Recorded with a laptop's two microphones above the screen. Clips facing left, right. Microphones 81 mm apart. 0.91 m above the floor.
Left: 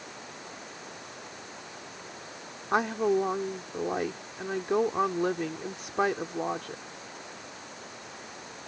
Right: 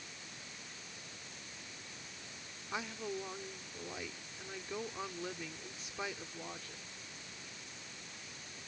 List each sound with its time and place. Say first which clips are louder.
0.0 s running water: left 10 dB; 60° left (ahead or behind)
2.7 s a woman speaking: left 16 dB; 65° left (ahead or behind)